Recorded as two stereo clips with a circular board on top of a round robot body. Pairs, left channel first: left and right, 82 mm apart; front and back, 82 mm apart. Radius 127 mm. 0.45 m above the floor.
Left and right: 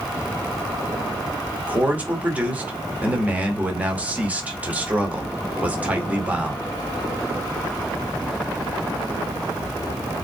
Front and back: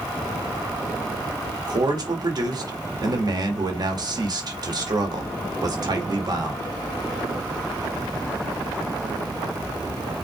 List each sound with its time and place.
1.6 s a man speaking: 160° right, 2 m